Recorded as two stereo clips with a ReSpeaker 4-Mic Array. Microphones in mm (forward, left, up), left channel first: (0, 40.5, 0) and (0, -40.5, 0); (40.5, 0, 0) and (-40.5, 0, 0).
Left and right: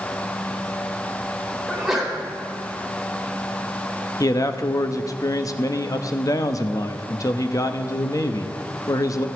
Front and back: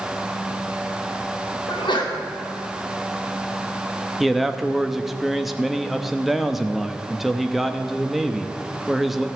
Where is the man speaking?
95° left, 0.9 m.